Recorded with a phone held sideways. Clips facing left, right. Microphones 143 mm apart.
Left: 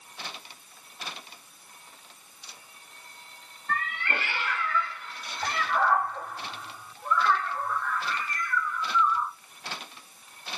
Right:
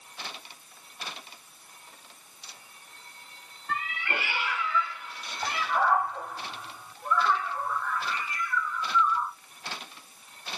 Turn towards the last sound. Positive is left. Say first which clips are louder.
# left 1 dB
turn(degrees=-10)  # may be behind; listen again after turning